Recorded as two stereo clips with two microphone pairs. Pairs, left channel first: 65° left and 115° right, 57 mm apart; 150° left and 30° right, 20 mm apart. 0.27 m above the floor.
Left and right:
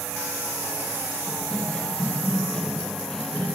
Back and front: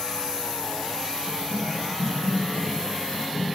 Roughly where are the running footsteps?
Behind left.